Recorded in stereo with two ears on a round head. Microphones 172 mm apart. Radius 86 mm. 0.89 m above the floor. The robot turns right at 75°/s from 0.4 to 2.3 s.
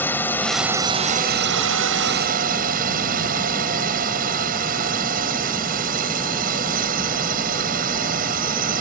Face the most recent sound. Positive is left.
turn(degrees=-50)